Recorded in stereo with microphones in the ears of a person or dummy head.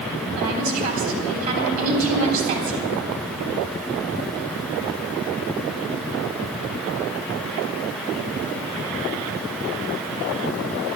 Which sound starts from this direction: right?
A woman speaking, at 0.4 s.